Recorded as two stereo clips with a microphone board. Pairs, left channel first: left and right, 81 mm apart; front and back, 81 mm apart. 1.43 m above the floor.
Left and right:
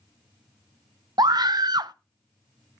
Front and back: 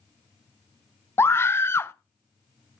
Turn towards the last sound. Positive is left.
turn(degrees=-60)